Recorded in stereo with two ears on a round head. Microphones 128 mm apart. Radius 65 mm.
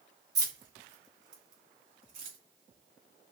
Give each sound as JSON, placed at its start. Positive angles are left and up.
{"t": 0.3, "sound": "keys jangling", "side_deg": -25, "distance_m": 0.8}